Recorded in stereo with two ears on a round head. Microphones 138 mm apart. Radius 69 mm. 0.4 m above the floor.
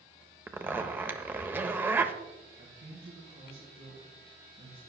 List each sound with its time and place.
0.5 s a zipper: 15° right (ahead or behind), 0.7 m
2.6 s a man speaking: 70° right (ahead or behind), 4 m